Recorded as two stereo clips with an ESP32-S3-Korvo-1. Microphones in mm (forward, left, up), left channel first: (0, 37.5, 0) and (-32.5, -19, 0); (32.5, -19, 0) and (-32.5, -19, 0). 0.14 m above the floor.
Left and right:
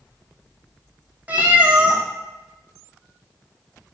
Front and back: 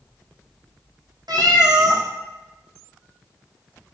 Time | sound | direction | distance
1.3 | a cat meowing | 170° left | 1.8 m